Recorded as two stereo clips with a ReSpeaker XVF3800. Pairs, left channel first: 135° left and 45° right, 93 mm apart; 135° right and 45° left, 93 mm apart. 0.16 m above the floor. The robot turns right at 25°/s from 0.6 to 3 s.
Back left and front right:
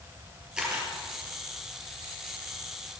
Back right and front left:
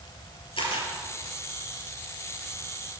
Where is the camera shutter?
125° right, 3.5 m; by 0.9 s 115° right, 3.5 m.